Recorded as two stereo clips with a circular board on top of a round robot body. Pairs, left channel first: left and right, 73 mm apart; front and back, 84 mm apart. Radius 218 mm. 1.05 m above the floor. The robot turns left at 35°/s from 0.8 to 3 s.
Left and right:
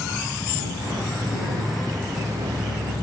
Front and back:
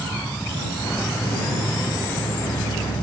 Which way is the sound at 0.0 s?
80° left.